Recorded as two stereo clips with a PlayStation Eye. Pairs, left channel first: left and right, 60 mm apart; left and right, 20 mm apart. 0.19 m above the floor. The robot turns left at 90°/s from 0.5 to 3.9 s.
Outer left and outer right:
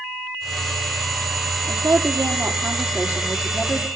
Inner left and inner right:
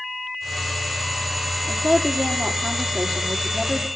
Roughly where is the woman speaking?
Ahead right.